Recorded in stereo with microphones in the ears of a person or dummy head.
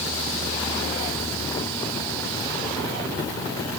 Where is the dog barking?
No dog barking in this recording.